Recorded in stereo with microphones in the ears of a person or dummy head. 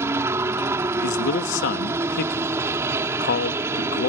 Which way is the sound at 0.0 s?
15° right (ahead or behind).